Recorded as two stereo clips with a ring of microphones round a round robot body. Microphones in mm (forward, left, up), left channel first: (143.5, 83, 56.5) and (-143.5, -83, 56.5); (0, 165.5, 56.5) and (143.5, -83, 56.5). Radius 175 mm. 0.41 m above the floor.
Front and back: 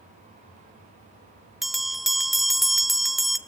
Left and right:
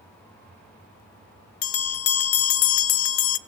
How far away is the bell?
About 0.9 m.